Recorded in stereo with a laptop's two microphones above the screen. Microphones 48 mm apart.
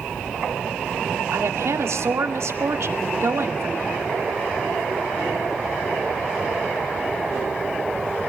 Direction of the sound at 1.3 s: 75° right (ahead or behind).